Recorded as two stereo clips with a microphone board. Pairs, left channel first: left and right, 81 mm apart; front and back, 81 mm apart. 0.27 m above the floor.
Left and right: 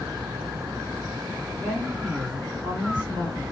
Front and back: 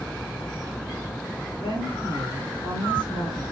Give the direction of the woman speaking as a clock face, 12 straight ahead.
12 o'clock.